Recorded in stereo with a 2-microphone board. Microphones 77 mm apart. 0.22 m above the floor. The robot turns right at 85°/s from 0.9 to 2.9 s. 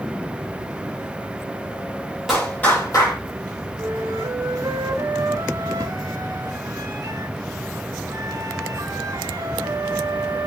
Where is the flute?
40° right (ahead or behind), 3 m.